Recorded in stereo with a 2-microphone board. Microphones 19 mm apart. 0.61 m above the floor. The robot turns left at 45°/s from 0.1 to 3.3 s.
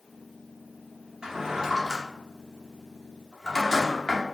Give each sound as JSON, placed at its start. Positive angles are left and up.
{"t": 1.2, "sound": "a drawer", "side_deg": -45, "distance_m": 0.7}